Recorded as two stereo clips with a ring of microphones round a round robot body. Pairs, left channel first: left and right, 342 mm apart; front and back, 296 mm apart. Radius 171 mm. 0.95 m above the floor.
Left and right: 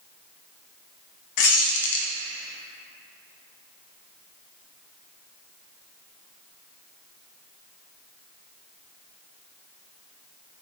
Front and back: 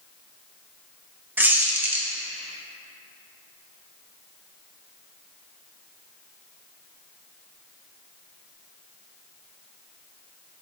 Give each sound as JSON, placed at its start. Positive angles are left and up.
{"t": 1.4, "sound": "a squeak", "azimuth_deg": 95, "distance_m": 0.5}